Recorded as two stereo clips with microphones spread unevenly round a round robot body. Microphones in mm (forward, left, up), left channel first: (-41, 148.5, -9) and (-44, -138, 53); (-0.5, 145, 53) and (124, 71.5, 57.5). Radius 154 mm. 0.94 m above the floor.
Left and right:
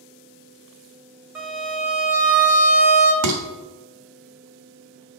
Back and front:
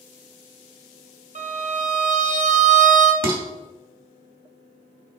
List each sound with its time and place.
1.4 s a violin: straight ahead, 1.6 m
3.2 s dishes clattering: 50° right, 1.2 m